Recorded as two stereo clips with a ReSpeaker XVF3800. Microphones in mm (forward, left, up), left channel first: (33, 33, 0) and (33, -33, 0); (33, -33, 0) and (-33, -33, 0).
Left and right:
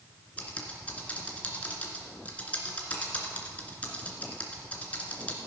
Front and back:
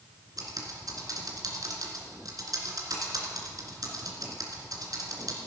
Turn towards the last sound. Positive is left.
turn(degrees=155)